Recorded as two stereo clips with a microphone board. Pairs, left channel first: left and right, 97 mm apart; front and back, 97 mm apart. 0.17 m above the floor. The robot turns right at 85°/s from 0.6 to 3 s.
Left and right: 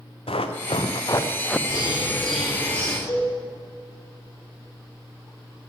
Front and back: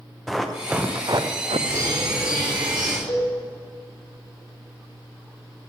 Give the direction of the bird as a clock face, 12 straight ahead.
8 o'clock.